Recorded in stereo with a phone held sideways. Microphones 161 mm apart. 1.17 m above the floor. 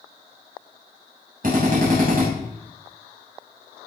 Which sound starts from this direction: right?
A drill, at 1.4 s.